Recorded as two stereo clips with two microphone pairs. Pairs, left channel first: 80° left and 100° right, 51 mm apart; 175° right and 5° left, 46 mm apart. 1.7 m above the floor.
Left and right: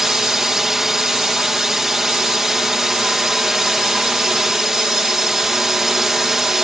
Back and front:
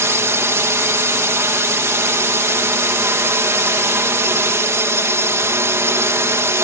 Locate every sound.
0.0 s a drone: 15° right